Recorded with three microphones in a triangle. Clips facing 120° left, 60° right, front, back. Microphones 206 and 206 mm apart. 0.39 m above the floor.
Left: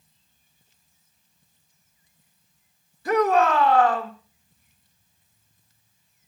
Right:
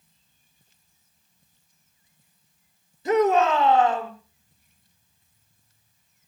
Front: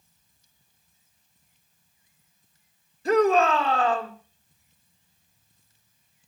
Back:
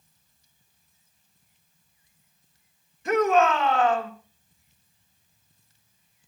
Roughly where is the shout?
Ahead.